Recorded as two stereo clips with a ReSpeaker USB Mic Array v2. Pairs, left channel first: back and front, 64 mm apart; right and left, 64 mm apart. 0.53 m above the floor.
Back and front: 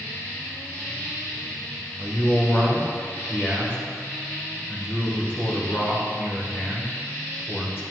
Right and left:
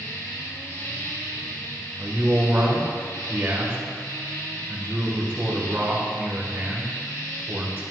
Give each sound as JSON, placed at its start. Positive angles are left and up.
{"t": 0.0, "sound": "an insect", "azimuth_deg": -120, "distance_m": 2.5}
{"t": 2.0, "sound": "a man speaking", "azimuth_deg": 135, "distance_m": 2.0}